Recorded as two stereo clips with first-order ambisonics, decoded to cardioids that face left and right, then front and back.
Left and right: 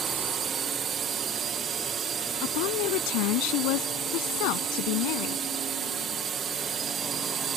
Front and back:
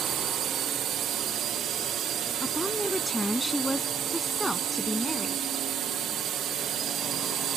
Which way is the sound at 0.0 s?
145° right.